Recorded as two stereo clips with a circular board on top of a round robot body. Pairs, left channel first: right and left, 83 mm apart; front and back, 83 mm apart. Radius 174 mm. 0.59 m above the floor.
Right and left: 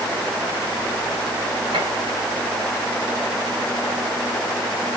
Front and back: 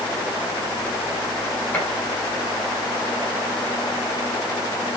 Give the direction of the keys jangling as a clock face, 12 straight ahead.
No keys jangling in this recording.